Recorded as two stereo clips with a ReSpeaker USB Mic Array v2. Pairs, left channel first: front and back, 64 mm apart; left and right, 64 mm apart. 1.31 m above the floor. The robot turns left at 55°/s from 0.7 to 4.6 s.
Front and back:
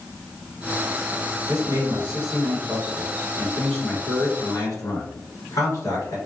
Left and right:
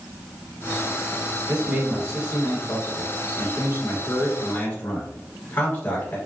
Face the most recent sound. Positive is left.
turn(degrees=40)